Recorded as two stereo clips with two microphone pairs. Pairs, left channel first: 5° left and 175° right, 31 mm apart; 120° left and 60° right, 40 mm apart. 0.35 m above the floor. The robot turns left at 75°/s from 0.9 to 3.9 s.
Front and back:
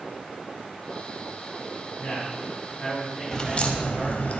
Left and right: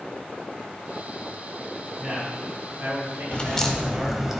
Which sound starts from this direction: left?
A crack, at 3.3 s.